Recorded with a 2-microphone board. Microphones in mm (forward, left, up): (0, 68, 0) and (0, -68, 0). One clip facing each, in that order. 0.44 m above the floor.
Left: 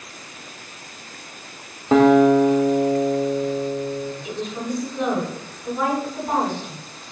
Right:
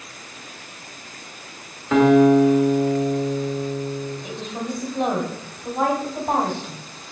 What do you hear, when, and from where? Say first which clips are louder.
1.9 s a guitar: even; 30° left (ahead or behind), 0.6 m
4.2 s a woman speaking: left 2 dB; 40° right (ahead or behind), 1.3 m